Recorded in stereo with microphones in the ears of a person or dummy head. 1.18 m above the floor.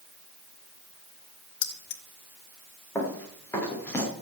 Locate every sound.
1.6 s keys jangling: 80° left, 1.6 m
3.0 s running footsteps: 20° left (ahead or behind), 7 m